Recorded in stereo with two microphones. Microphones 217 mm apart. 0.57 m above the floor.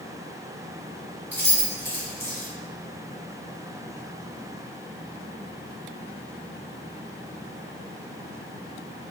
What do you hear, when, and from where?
1.3 s keys jangling: 50° right (ahead or behind), 1.3 m